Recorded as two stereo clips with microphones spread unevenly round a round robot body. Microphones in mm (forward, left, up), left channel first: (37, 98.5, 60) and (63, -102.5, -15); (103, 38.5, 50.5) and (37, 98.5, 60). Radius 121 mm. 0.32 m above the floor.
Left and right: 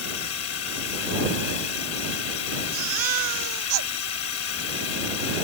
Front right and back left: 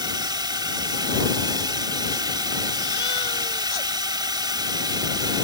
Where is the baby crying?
100° right.